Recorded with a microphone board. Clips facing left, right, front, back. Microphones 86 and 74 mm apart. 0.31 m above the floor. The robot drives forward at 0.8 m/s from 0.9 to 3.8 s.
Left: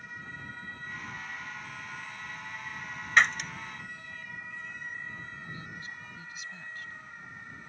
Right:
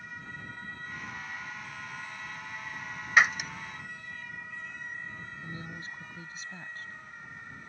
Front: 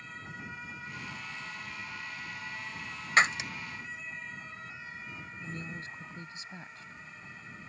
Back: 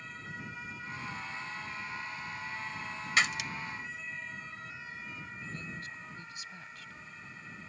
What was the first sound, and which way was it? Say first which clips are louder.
Breaking glass: right 1 dB, front 5 dB; 10° right.